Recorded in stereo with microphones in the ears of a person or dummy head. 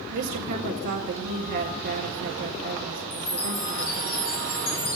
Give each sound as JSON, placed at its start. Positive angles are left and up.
{"t": 0.1, "sound": "a woman speaking", "side_deg": -60, "distance_m": 1.5}
{"t": 3.1, "sound": "a chime", "side_deg": 75, "distance_m": 2.5}